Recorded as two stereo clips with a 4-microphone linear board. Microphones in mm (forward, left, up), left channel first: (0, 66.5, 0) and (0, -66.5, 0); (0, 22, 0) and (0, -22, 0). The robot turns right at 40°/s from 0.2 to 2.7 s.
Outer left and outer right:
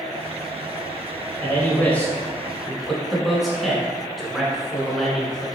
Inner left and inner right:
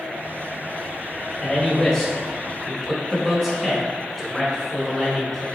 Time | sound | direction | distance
1.4 | a man speaking | 15° left (ahead or behind) | 1.1 m